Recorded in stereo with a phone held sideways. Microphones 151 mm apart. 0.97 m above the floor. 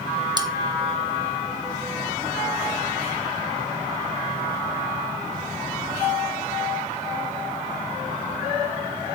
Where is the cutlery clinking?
30° right (ahead or behind), 0.6 m.